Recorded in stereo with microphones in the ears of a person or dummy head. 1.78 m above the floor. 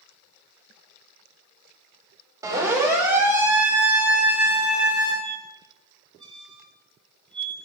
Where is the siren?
25° right (ahead or behind), 5.5 m; by 5.1 s 15° right (ahead or behind), 9 m.